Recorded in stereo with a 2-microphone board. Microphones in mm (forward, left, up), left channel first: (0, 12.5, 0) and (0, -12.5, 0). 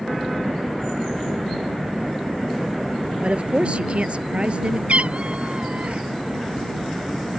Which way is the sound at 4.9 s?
55° right (ahead or behind).